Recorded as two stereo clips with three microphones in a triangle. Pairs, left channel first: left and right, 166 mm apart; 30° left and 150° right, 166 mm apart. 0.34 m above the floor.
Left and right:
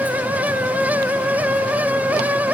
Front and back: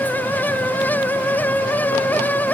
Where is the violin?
No violin in this recording.